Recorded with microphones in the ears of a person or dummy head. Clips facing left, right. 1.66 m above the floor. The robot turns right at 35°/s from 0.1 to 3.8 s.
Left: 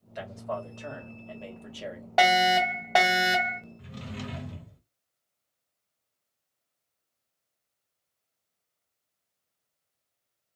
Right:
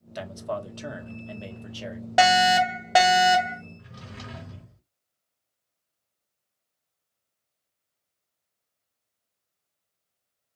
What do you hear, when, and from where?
0.1 s a man speaking: 60° right, 0.9 m; by 2.1 s 5° left, 0.9 m
2.2 s a fire alarm: 15° right (ahead or behind), 0.9 m; by 3.6 s 5° left (ahead or behind), 0.9 m
3.8 s a drawer: 40° left (ahead or behind), 1.9 m